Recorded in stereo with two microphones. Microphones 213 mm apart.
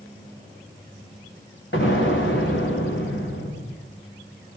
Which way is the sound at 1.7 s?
65° left (ahead or behind).